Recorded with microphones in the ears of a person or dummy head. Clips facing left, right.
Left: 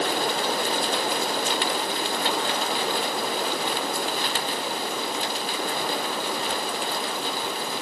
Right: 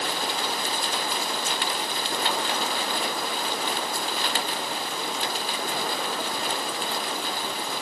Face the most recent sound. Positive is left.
No sound to turn to.